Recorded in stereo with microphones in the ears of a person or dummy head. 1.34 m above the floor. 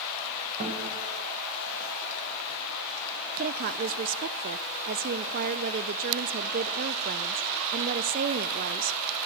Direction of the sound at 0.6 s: 40° right (ahead or behind).